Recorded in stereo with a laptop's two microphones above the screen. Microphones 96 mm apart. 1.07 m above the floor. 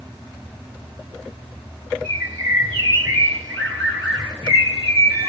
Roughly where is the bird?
Centre.